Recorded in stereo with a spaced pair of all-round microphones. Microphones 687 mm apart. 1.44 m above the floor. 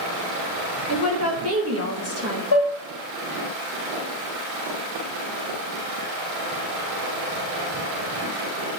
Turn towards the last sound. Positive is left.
turn(degrees=30)  # may be behind; listen again after turning